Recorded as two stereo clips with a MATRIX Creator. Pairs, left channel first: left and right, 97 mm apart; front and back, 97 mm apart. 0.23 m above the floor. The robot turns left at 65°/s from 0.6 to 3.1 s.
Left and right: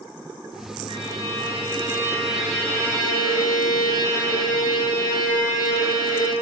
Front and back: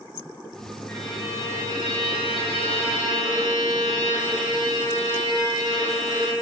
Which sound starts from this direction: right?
A violin, at 0.9 s.